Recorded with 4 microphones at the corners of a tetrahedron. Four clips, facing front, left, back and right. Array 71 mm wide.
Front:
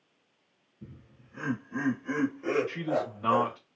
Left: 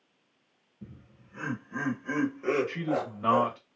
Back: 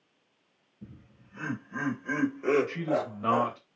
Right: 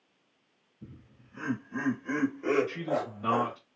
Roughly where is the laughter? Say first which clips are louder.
Left 1 dB, even; ahead left.